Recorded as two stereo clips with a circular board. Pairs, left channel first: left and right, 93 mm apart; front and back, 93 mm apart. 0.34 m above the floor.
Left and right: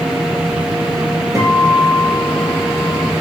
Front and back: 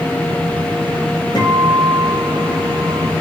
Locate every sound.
1.4 s a guitar: 30° right, 5.5 m